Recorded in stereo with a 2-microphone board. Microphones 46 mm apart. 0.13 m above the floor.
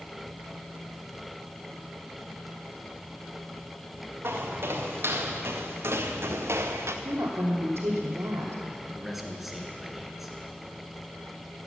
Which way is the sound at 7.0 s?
65° right (ahead or behind).